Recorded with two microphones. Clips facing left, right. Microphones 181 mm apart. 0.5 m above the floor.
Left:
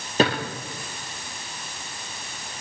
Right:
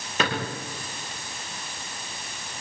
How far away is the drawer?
About 6.5 m.